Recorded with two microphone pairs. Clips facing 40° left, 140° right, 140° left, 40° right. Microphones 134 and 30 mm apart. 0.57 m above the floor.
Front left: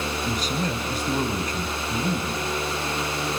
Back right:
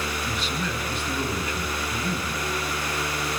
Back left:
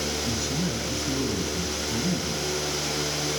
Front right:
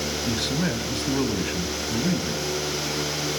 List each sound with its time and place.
0.3 s a man speaking: 5° right, 3 m